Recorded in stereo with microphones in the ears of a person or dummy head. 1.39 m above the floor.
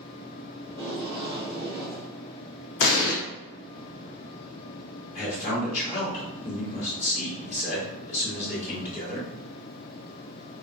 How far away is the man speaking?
About 2.0 m.